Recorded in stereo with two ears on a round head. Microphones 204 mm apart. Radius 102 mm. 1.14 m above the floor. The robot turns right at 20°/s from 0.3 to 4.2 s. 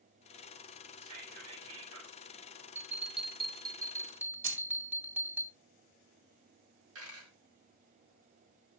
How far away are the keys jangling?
About 2 m.